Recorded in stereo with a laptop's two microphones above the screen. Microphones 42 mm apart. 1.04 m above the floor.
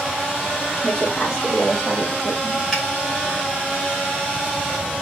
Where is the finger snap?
5° left (ahead or behind), 3 m.